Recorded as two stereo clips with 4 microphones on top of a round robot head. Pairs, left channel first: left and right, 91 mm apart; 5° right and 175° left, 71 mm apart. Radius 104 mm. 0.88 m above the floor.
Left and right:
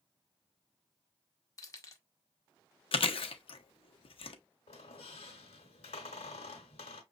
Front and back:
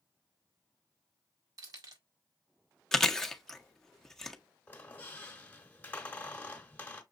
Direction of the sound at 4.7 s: 60° left.